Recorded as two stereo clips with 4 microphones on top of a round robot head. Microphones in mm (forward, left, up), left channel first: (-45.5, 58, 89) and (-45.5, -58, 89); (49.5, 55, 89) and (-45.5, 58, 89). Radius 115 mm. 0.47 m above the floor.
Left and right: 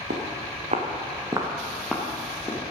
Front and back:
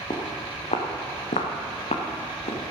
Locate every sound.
0.1 s footsteps: 65° right, 2.5 m; by 2.6 s 20° left, 2.5 m